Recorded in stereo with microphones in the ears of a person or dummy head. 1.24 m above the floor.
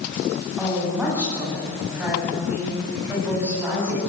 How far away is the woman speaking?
About 9 m.